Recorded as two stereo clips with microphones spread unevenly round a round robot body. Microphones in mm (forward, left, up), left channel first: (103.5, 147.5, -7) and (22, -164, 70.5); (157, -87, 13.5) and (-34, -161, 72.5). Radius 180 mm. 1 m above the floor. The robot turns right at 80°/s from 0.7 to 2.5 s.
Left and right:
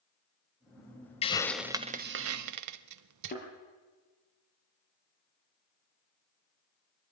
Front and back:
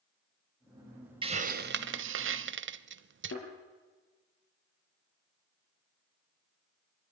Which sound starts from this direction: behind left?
A hiss, at 1.2 s.